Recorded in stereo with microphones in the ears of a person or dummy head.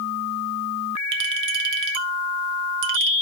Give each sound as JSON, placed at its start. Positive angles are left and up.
{"t": 1.1, "sound": "a clink", "side_deg": -50, "distance_m": 0.9}